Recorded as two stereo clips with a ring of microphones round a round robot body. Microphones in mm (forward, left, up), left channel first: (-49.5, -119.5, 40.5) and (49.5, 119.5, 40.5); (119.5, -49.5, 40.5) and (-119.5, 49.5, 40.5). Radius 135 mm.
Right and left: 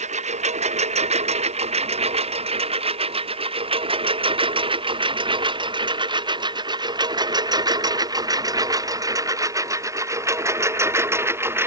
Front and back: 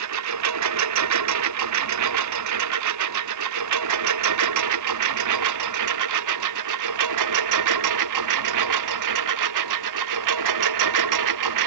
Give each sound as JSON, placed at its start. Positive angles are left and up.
{"t": 0.0, "sound": "a lawn mower", "azimuth_deg": 135}